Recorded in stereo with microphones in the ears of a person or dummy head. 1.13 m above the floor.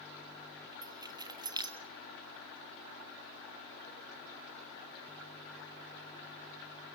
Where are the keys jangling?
25° right (ahead or behind), 1.2 m.